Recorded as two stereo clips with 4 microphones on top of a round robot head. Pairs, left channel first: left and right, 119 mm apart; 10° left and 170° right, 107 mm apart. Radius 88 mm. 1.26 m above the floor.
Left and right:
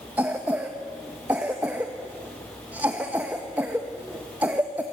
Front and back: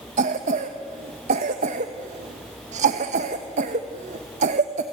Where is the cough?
170° right, 1.2 m.